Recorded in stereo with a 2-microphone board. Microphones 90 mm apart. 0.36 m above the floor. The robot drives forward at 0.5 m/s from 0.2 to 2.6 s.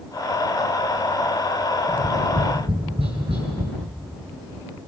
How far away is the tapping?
About 7 m.